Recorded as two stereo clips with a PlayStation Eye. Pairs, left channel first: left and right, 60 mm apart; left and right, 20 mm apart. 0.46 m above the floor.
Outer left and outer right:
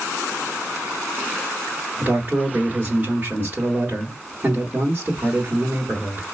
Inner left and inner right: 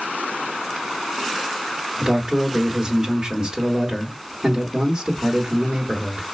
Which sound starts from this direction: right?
A man speaking, at 2.0 s.